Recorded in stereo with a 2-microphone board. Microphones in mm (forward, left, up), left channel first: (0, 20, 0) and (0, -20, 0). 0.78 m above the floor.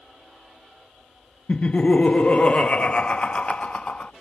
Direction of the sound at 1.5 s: 35° left (ahead or behind).